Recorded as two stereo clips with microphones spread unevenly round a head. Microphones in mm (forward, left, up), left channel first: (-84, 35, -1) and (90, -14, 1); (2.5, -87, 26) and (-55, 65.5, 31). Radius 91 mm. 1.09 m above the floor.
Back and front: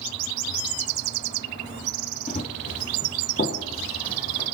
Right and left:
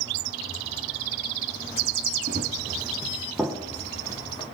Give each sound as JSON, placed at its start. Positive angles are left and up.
{"t": 2.3, "sound": "running footsteps", "azimuth_deg": 125, "distance_m": 1.5}